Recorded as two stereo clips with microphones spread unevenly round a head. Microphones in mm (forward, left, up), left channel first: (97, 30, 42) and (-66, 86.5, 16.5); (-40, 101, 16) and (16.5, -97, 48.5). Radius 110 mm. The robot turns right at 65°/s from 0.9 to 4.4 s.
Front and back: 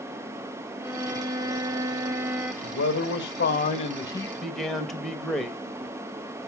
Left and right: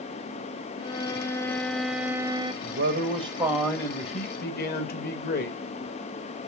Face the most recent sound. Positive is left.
turn(degrees=70)